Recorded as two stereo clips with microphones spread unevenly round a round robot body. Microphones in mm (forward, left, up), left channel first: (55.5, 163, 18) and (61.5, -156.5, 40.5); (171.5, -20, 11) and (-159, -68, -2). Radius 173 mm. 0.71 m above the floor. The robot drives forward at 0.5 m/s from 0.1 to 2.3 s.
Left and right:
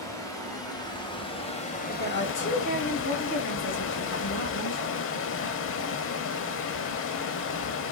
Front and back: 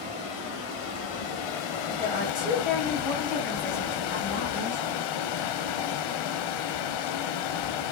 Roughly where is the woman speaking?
Left.